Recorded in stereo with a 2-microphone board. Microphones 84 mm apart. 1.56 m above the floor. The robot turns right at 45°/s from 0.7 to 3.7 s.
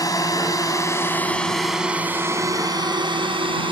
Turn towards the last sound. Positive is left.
turn(degrees=-85)